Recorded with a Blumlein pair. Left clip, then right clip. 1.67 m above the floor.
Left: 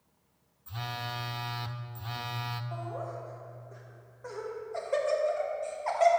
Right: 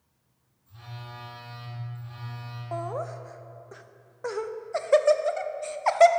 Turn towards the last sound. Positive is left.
turn(degrees=-60)